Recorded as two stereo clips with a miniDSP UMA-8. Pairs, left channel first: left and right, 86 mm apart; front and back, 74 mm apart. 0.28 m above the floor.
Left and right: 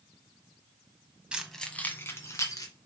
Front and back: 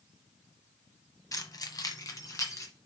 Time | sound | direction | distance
1.3 | keys jangling | 15° right | 1.2 m